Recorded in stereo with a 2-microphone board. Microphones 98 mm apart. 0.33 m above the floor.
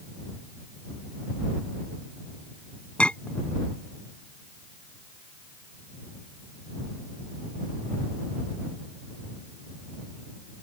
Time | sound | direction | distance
3.0 | a clink | 10° left (ahead or behind) | ?